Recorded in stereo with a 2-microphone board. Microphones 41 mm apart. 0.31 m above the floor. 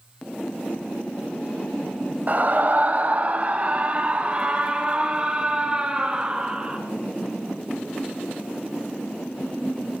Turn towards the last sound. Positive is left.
turn(degrees=-20)  # may be behind; listen again after turning